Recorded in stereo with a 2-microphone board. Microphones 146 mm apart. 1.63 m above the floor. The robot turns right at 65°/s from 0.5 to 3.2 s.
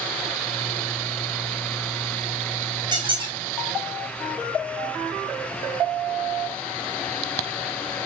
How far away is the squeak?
About 0.9 m.